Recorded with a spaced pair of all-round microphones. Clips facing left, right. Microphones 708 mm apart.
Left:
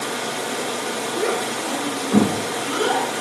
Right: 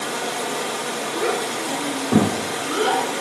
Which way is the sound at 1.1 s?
35° right (ahead or behind).